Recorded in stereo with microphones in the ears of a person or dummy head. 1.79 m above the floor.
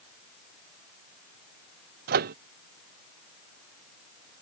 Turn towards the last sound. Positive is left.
turn(degrees=-40)  # may be behind; listen again after turning